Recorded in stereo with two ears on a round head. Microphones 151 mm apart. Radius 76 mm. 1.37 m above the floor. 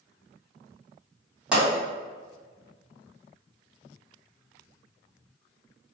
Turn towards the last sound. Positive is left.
turn(degrees=-5)  # may be behind; listen again after turning